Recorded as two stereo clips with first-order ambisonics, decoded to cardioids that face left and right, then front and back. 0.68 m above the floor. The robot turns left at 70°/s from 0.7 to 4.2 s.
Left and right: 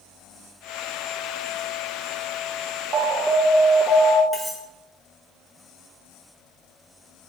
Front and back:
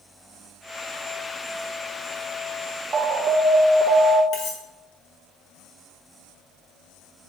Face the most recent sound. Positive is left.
turn(degrees=-5)